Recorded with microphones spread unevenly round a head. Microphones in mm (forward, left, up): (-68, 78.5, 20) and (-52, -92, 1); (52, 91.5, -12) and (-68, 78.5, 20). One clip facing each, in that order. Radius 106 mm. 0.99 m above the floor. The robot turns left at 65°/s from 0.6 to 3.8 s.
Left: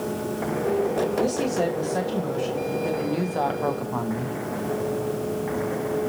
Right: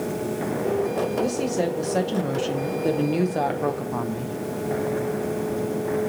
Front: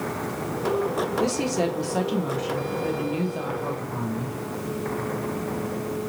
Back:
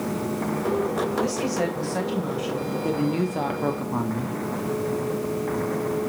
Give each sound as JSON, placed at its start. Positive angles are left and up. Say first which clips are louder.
{"t": 1.2, "sound": "a woman speaking", "louder": "even, front 1 dB", "azimuth_deg": 5, "distance_m": 0.8}